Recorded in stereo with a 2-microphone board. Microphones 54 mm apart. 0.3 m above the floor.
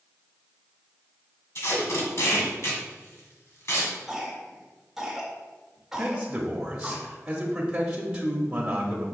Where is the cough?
10° right (ahead or behind), 1.8 m.